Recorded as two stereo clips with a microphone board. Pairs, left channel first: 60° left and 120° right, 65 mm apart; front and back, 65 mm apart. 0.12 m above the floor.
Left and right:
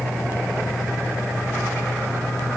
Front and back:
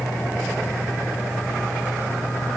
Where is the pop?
I don't hear a pop.